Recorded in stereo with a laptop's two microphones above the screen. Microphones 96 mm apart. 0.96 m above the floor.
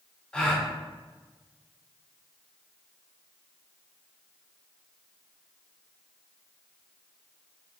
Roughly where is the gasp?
Centre.